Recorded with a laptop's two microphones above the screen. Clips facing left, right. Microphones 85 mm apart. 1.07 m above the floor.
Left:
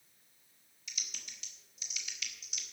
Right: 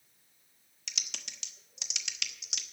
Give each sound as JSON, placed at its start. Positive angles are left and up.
{"t": 0.9, "sound": "typing on a keyboard", "side_deg": -75, "distance_m": 1.0}